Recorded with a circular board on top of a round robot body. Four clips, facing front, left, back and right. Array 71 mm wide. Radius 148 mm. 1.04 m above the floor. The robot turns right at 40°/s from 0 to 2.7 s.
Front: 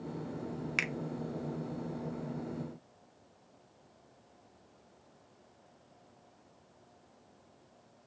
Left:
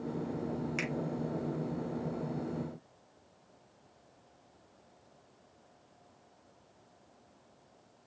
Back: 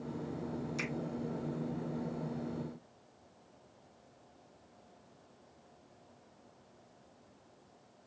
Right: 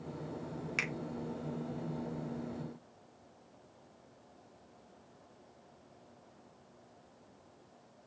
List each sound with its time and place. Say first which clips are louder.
0.8 s a finger snap: left 1 dB, front 7 dB; 15° right, 0.6 m; by 0.9 s 10° right, 0.6 m